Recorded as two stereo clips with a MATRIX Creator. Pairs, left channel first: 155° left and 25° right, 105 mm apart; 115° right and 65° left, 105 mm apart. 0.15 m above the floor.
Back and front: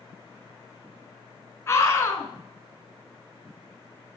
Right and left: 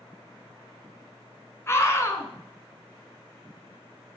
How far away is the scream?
About 1.3 m.